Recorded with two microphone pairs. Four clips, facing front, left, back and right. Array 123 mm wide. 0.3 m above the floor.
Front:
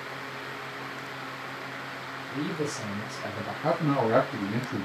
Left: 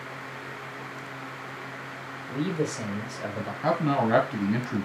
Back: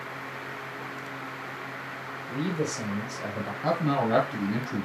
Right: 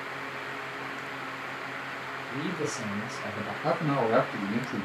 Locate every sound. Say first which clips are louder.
2.3 s a man speaking: left 4 dB, back 2 dB; 135° left, 3 m
3.6 s a man speaking: left 2 dB, front 1 dB; 95° left, 1.4 m